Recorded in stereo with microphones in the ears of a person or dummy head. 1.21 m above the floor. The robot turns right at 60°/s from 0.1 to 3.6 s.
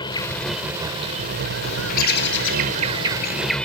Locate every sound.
0.0 s an insect: 155° left; by 3.6 s 5° left
1.6 s a bird: 35° left; by 3.5 s 150° left